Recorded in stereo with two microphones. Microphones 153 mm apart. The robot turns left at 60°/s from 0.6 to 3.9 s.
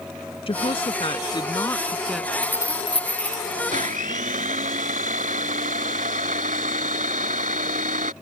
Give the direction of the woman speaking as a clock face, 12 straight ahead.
9 o'clock.